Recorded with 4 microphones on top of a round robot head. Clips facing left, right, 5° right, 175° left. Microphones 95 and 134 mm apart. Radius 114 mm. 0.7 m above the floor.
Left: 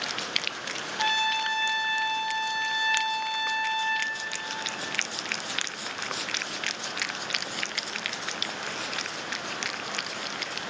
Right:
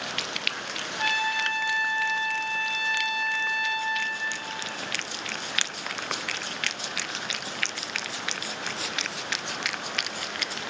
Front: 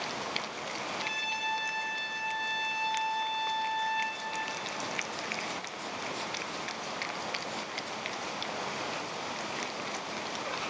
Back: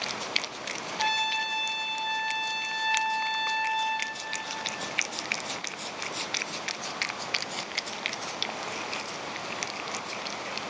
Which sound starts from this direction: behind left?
A trumpet, at 1.0 s.